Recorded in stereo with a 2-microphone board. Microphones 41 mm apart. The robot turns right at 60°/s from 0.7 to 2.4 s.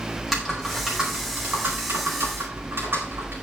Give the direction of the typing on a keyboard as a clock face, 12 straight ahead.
6 o'clock.